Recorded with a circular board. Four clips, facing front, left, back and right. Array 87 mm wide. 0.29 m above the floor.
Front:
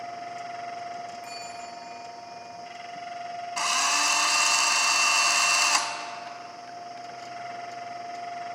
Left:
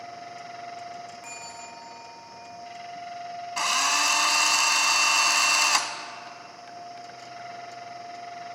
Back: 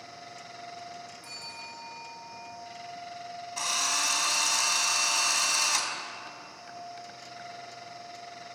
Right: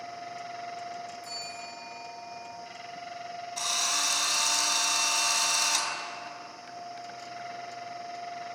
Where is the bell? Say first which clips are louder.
Even, front 7 dB; 75° left, 5.5 m.